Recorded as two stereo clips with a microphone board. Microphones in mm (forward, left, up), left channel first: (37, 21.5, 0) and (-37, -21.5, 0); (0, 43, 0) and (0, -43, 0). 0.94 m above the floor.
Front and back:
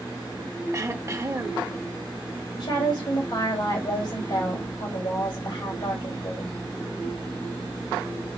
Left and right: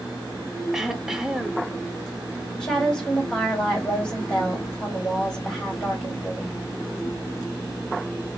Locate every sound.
0.7 s throat clearing: 170° right, 0.6 m
2.6 s a woman speaking: 5° left, 3.5 m